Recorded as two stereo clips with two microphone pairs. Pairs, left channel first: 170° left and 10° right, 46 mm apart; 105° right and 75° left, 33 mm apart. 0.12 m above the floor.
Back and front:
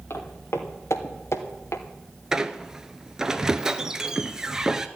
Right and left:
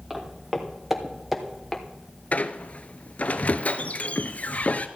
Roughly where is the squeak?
Right.